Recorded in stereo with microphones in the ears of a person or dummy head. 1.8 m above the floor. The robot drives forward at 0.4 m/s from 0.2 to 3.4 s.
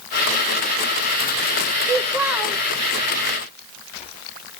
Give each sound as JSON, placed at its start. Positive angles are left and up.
{"t": 1.8, "sound": "a child speaking", "side_deg": -10, "distance_m": 0.6}